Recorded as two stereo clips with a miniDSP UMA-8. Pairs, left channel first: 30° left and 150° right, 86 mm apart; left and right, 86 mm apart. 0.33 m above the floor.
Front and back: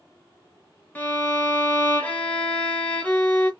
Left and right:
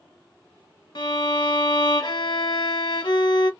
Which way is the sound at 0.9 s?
100° left.